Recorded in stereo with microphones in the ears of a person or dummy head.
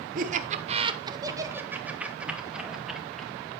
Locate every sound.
0.1 s laughter: 45° right (ahead or behind), 0.8 m; by 3.3 s centre (ahead or behind), 2 m